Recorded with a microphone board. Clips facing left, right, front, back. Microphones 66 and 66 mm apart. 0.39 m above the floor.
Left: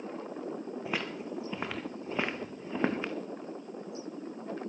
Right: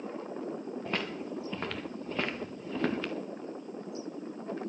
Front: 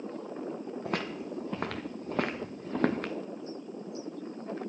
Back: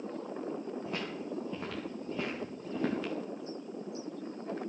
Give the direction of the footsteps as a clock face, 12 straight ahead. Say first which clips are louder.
Right 1 dB, front 3 dB; 12 o'clock.